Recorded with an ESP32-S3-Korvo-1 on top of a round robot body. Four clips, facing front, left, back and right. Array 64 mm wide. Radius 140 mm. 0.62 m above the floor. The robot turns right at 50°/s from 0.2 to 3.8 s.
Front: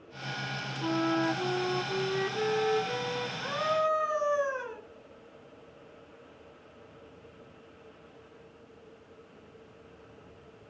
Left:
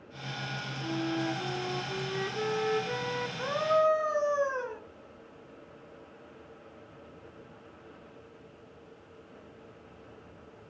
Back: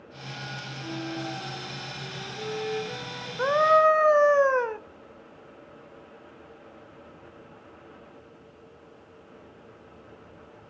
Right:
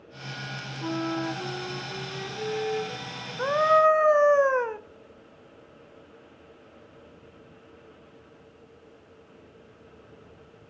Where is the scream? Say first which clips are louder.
Right 7 dB, back 11 dB; 155° right, 2 m; by 4.8 s 135° right, 2 m.